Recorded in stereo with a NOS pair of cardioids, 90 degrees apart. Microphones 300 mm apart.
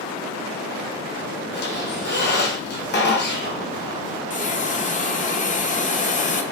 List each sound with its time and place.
1.5 s a squeak: 35° left, 0.8 m
4.3 s a hiss: 25° left, 0.5 m